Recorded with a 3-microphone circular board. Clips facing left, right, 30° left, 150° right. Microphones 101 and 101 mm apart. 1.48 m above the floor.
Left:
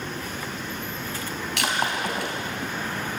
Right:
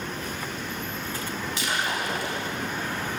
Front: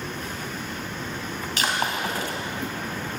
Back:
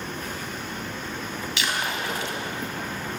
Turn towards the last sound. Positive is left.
turn(degrees=75)